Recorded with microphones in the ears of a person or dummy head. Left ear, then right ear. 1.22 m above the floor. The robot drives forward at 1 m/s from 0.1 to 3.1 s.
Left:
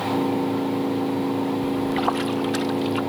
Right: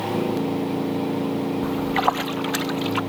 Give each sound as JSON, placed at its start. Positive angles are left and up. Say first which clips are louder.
{"t": 1.6, "sound": "a splash", "louder": "right 4 dB", "side_deg": -15}